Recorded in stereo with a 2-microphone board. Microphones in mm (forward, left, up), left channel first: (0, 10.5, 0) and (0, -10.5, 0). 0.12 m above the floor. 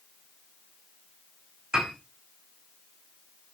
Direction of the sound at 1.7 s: 35° right (ahead or behind).